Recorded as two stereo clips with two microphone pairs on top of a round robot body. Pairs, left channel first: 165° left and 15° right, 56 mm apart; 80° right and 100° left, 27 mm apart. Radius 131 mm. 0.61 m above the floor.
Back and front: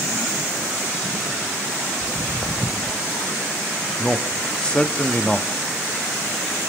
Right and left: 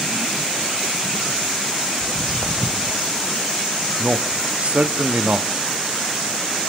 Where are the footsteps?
105° left, 2 m.